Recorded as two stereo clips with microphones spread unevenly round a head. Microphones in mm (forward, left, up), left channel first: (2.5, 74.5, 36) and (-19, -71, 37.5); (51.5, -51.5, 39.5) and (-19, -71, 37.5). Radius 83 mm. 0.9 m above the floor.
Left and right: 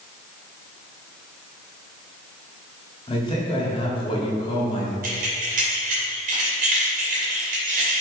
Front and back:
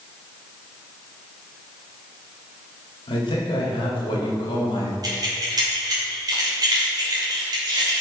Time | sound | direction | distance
3.1 | a man speaking | 20° left | 2 m
5.0 | keys jangling | 130° right | 2.5 m